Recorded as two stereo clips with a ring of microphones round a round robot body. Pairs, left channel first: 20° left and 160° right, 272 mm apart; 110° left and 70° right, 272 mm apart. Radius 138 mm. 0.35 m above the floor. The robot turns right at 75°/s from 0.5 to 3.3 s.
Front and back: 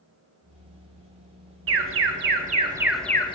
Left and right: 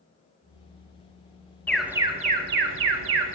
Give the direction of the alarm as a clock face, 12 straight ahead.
6 o'clock.